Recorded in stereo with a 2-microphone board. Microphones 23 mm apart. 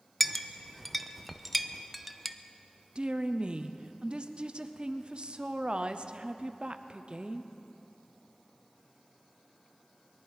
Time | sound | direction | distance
0.2 | a clink | centre (ahead or behind) | 0.5 m
3.0 | a woman speaking | 45° right (ahead or behind) | 0.5 m